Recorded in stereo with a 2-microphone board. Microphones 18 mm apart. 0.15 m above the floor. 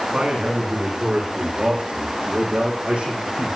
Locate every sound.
0.1 s a man speaking: 65° right (ahead or behind), 9.5 m; by 3.6 s 80° right, 7.5 m